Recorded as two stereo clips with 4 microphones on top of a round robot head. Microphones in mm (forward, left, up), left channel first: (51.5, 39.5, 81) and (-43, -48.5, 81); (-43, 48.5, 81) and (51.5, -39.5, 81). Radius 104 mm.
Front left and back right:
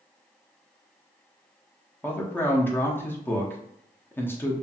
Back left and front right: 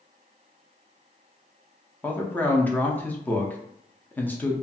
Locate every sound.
2.0 s a man speaking: 85° left, 0.7 m